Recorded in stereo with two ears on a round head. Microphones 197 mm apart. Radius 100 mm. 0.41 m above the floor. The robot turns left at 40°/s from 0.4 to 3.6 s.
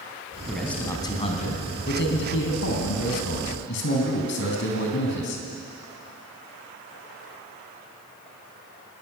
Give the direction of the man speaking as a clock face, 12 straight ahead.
6 o'clock.